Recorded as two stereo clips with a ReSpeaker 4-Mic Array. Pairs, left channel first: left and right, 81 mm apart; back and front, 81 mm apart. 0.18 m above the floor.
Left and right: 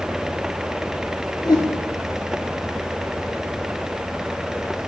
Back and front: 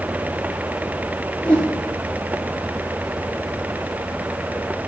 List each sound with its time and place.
1.4 s a whoosh: 110° left, 1.1 m